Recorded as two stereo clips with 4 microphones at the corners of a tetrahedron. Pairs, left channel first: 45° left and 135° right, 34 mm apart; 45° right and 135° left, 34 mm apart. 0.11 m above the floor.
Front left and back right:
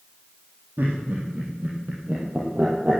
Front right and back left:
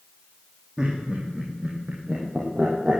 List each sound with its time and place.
0.8 s laughter: 160° right, 3.5 m; by 3.0 s straight behind, 3 m